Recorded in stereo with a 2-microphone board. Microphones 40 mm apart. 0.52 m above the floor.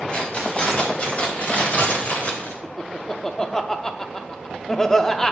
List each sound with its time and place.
0.1 s keys jangling: 25° left (ahead or behind), 2.5 m; by 2.5 s 45° left (ahead or behind), 1.4 m
2.6 s laughter: 15° left (ahead or behind), 0.6 m